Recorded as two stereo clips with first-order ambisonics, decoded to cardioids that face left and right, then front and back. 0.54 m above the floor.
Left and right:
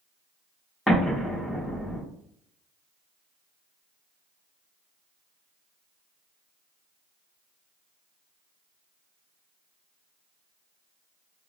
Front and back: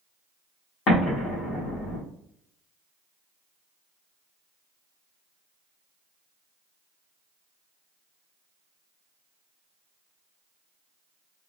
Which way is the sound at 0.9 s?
Straight ahead.